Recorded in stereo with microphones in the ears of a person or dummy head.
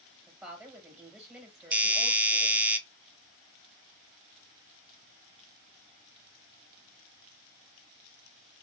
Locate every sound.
0.3 s a woman speaking: 5° right (ahead or behind), 1.6 m
1.7 s a doorbell: 10° right (ahead or behind), 0.5 m